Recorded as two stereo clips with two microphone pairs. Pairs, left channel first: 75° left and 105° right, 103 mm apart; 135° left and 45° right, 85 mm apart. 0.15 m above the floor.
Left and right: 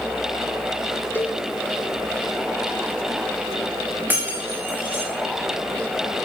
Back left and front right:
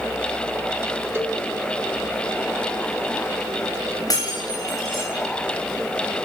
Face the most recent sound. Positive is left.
turn(degrees=-175)